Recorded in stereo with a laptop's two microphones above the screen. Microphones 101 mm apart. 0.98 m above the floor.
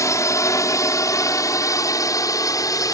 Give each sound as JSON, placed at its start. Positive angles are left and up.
{"t": 0.0, "sound": "a drone", "side_deg": 30}